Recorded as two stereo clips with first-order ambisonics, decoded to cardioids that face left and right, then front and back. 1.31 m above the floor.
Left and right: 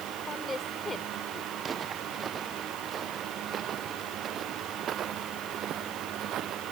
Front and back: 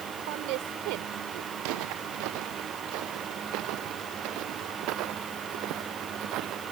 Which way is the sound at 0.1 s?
165° left.